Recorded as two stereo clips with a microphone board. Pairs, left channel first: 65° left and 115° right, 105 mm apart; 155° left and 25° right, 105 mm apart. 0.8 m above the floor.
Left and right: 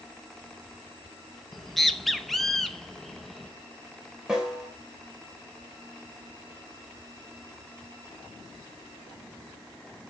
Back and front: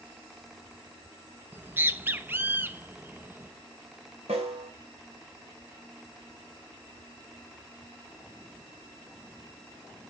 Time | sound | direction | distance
1.5 | a bird | 20° right | 0.7 m
4.3 | a snare drum | 30° right | 2.5 m